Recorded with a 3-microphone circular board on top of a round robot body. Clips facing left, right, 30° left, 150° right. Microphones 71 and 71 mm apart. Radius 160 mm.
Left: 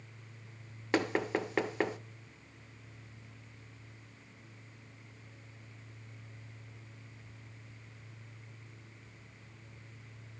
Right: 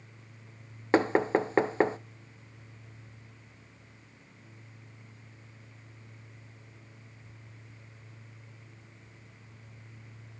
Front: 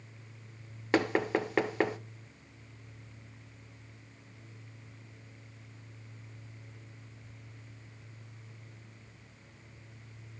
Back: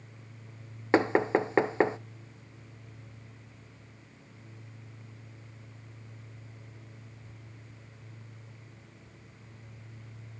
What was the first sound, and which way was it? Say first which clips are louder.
Knocking: right 7 dB, back 4 dB; 110° right.